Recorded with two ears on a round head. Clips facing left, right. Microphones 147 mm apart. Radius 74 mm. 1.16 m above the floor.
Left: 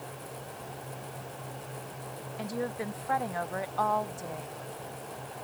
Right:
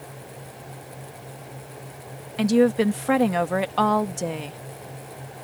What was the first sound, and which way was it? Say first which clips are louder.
A woman speaking: right 16 dB; 85° right.